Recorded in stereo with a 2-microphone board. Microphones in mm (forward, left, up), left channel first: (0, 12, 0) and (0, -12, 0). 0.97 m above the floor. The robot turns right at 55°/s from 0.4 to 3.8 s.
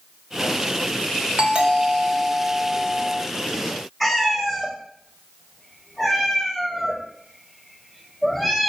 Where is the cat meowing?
Centre (ahead or behind), 1.0 m.